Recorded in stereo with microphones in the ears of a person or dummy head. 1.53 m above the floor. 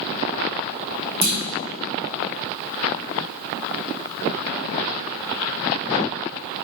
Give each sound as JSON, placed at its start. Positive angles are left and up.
{"t": 1.2, "sound": "a clunk", "side_deg": -30, "distance_m": 3.5}